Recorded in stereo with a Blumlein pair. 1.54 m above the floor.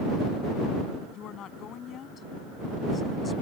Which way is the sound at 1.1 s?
30° left.